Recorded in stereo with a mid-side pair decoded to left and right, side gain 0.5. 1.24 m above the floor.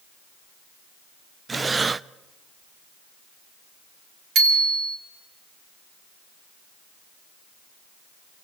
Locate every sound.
1.5 s breathing: 25° right, 0.5 m
4.3 s a bicycle bell: 60° right, 4.5 m